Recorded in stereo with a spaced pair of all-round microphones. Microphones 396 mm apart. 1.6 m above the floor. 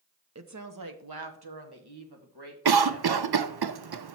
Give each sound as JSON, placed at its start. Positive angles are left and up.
{"t": 0.3, "sound": "a woman speaking", "side_deg": -40, "distance_m": 0.7}
{"t": 2.6, "sound": "a cough", "side_deg": -70, "distance_m": 0.5}